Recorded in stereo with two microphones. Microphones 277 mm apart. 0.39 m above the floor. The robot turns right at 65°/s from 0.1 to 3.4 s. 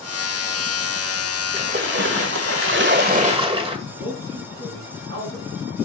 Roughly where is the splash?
Behind right.